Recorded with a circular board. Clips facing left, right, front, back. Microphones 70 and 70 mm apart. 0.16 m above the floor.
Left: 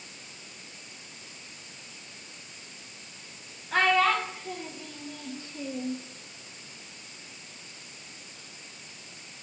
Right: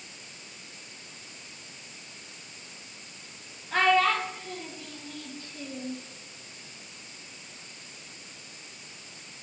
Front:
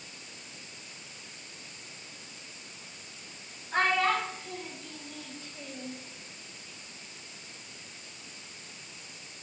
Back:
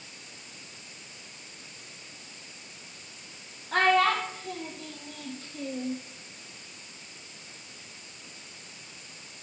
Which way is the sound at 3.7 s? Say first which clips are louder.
Even, back 4 dB; straight behind.